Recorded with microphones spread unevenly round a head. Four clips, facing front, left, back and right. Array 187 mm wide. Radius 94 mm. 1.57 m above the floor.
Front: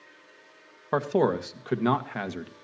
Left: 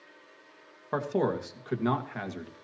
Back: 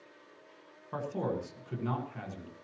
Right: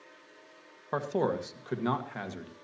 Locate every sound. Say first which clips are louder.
0.9 s a man speaking: left 1 dB, front 10 dB; 5° left, 1.6 m